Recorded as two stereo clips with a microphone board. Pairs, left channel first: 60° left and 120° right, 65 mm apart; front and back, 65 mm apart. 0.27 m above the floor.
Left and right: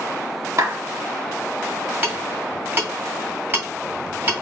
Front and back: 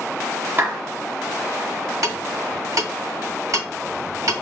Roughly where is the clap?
Behind right.